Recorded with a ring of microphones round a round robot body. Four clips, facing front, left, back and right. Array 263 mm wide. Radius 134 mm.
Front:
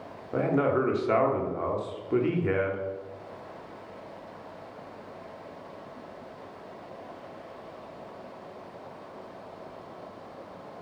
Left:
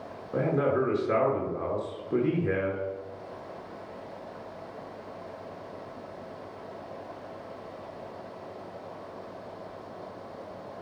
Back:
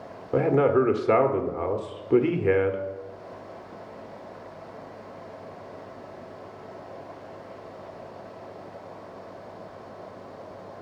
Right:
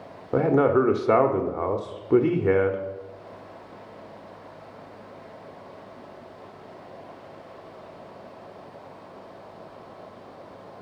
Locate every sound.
0.3 s a man speaking: 115° right, 1.2 m